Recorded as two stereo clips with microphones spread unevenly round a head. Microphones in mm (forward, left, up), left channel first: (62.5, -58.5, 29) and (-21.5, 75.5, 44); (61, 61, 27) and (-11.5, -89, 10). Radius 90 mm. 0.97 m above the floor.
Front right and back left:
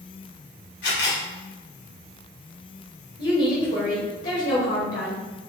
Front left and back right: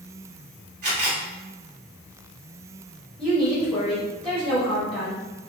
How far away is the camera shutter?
About 1.9 m.